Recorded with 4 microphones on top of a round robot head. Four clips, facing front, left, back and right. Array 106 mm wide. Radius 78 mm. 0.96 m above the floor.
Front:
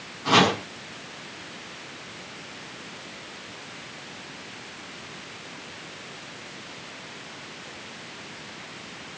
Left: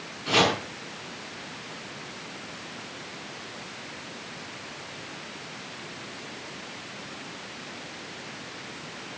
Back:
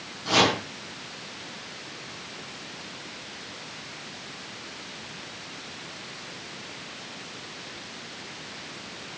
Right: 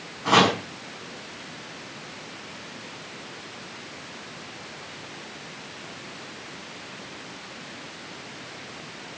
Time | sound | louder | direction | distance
0.2 | chopping | right 4 dB, front 3 dB | 65° right | 7.5 m